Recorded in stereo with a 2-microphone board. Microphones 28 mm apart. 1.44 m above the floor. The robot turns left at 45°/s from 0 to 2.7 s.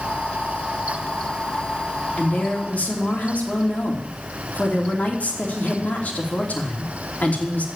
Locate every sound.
2.2 s a woman speaking: 60° left (ahead or behind), 3 m; by 7.7 s 85° left, 3 m